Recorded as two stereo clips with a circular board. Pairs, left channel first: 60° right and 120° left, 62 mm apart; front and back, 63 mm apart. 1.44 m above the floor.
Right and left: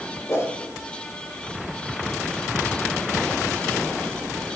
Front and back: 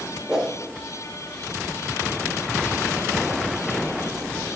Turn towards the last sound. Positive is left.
turn(degrees=-100)